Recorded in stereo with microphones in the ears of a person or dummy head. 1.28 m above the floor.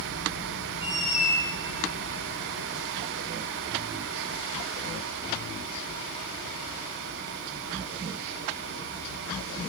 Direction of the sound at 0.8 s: 25° right (ahead or behind).